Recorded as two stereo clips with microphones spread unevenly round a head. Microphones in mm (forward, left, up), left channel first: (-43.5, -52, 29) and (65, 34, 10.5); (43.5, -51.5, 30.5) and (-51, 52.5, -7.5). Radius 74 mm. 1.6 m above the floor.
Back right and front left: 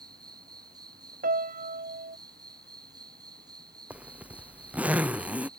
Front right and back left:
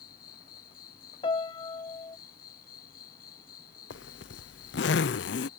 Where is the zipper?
45° right.